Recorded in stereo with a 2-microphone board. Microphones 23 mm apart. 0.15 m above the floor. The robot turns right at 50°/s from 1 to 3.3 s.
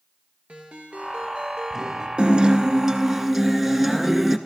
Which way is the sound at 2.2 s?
65° right.